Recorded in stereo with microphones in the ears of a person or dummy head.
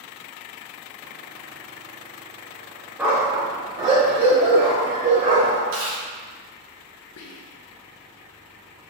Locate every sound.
3.0 s a dog barking: 5° right (ahead or behind), 0.8 m; by 5.6 s 45° right (ahead or behind), 1.8 m
5.7 s chewing: 70° right (ahead or behind), 1.8 m
7.2 s whispering: 75° left (ahead or behind), 0.5 m